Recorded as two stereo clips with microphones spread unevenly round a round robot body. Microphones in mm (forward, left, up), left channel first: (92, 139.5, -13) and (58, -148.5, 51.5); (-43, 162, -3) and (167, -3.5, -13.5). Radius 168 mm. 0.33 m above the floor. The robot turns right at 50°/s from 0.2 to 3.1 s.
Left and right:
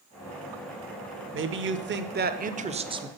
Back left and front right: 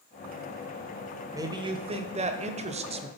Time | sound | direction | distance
1.3 | a man speaking | 95° right | 0.9 m